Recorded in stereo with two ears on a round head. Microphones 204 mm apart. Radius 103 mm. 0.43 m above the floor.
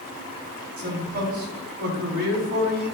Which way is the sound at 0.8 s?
45° right (ahead or behind).